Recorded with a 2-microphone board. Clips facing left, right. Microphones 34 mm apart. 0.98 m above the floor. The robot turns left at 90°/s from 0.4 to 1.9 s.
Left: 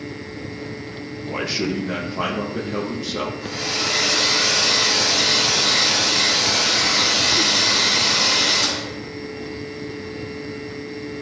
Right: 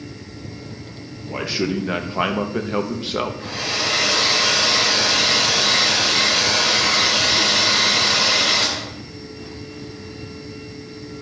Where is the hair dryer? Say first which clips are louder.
Right 1 dB; 50° right (ahead or behind), 2.5 m.